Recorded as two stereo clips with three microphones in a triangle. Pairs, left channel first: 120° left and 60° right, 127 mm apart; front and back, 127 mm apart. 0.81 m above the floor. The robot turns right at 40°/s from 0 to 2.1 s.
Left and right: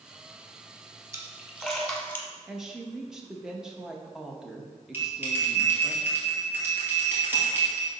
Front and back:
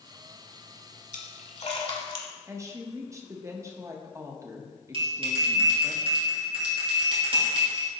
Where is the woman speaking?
140° right, 0.8 m.